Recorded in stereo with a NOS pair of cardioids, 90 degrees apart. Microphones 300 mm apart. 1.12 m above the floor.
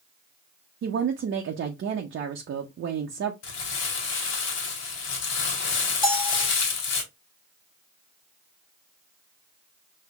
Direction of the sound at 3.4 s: 60° left.